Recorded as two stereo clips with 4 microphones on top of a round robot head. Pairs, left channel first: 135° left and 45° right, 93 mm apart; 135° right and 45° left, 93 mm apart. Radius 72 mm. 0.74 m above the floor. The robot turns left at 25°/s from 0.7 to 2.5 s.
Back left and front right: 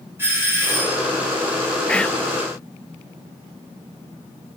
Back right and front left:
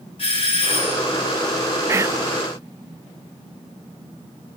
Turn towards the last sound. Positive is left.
turn(degrees=50)